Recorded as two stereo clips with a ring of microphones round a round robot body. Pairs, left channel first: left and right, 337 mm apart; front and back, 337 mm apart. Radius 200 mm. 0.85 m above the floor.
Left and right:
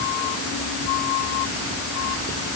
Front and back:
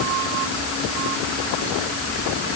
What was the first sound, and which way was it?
Only background noise.